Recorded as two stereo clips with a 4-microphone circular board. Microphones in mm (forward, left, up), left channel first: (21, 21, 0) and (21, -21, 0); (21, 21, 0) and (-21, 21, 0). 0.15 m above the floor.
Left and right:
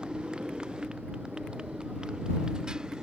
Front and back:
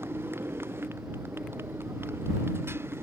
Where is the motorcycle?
160° right; by 3.0 s 165° right.